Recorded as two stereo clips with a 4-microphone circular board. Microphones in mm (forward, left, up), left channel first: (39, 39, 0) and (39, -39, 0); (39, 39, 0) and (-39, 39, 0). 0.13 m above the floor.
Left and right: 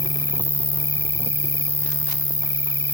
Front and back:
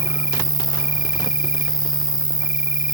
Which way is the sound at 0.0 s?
120° left.